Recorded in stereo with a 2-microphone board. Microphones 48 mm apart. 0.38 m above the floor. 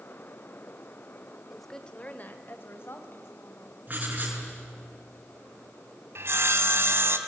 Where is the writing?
35° right (ahead or behind), 6 m.